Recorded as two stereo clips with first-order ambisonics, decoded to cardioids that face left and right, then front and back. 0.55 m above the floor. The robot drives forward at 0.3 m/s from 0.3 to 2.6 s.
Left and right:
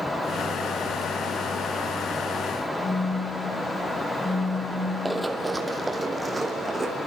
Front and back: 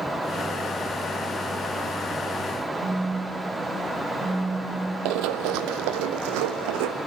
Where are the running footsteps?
175° right, 1.0 m; by 7.0 s 170° right, 2 m.